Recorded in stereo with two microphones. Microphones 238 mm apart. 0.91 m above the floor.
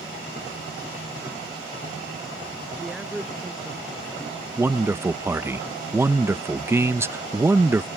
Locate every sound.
2.8 s a man speaking: centre (ahead or behind)
4.6 s a man speaking: 10° right (ahead or behind)